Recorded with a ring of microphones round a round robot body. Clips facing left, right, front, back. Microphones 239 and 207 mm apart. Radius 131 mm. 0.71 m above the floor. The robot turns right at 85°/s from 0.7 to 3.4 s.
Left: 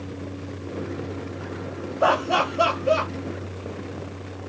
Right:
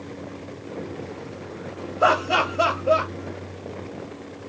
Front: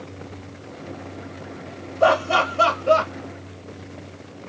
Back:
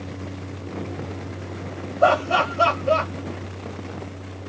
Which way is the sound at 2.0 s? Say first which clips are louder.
Even, even; 45° right.